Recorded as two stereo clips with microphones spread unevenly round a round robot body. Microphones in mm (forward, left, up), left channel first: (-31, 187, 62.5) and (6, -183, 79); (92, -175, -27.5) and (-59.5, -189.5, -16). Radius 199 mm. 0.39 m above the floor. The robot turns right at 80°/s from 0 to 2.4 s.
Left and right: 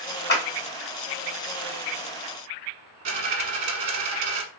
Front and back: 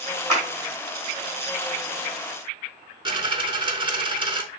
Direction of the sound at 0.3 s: 150° left.